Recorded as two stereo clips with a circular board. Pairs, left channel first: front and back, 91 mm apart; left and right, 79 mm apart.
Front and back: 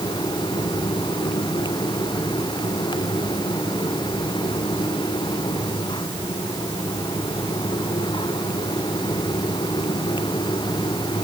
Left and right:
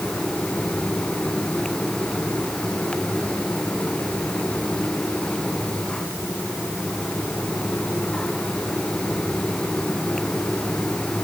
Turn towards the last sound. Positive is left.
No sound to turn to.